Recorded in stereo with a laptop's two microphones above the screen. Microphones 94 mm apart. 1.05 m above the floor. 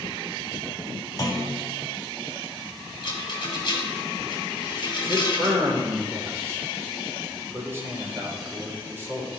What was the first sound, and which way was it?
A clunk, 35° left (ahead or behind).